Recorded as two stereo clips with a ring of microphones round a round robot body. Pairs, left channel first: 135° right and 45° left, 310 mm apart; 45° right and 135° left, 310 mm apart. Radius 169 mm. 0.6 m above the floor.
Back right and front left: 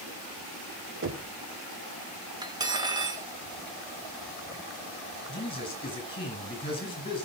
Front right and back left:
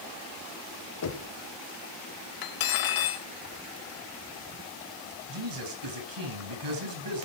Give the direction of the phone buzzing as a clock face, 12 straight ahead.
I don't hear a phone buzzing.